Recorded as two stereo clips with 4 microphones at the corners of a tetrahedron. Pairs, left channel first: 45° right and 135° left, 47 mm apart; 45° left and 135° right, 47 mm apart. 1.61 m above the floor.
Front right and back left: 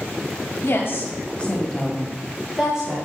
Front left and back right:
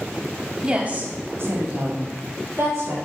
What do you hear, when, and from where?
0.6 s a woman speaking: 70° right, 1.5 m; by 3.0 s 155° right, 2.5 m